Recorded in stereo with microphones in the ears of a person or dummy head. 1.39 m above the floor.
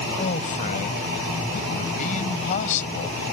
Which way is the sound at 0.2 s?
40° left (ahead or behind).